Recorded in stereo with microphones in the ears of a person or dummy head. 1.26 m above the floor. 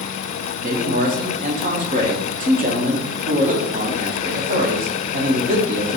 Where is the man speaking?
40° right (ahead or behind), 0.8 m.